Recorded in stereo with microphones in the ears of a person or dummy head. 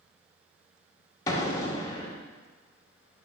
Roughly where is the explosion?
Centre.